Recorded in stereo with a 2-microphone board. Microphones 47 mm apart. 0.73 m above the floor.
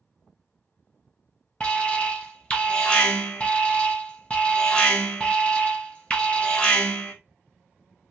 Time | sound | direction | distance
1.6 | an alarm | 25° left (ahead or behind) | 0.9 m